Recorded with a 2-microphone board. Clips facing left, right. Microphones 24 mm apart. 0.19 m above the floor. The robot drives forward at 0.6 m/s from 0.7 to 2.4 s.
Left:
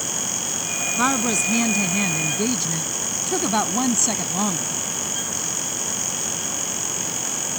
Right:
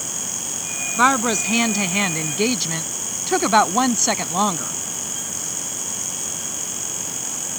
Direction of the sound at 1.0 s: 30° right (ahead or behind).